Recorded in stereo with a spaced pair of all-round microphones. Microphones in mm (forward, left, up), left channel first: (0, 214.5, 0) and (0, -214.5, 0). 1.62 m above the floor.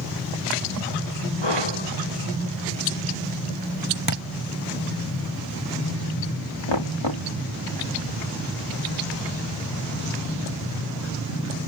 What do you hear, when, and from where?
1.4 s breathing: 75° left (ahead or behind)
4.1 s a thud: 50° right (ahead or behind)
6.7 s knocking: 80° left